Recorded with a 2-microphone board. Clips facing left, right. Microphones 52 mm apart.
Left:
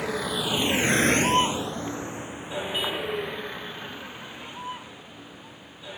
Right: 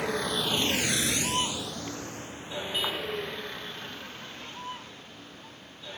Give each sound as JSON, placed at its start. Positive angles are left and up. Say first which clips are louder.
{"t": 0.0, "sound": "a vehicle", "louder": "left 1 dB", "side_deg": 0}